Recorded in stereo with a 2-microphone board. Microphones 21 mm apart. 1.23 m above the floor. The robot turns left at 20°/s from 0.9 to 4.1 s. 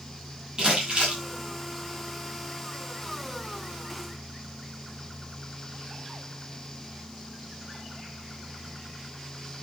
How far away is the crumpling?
About 9 m.